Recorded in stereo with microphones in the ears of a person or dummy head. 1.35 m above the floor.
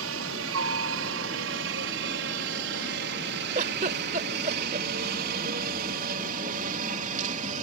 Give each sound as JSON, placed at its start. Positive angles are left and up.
{"t": 0.0, "sound": "a helicopter", "side_deg": -65}
{"t": 3.5, "sound": "a giggle", "side_deg": -45}